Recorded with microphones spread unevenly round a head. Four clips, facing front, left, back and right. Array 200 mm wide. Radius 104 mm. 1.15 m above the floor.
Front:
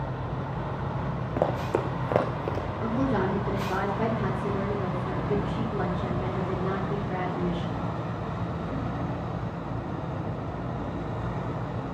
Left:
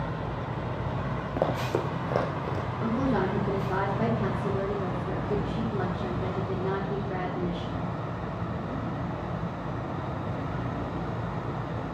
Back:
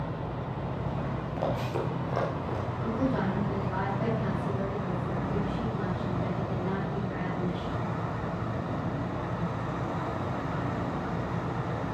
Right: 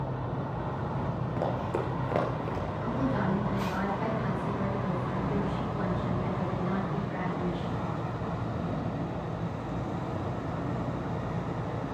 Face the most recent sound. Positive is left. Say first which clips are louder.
# left 4 dB, front 3 dB
turn(degrees=45)